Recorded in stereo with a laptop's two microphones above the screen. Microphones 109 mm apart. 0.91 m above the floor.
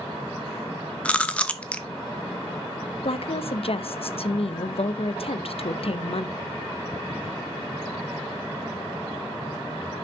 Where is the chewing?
10° left (ahead or behind), 0.7 m.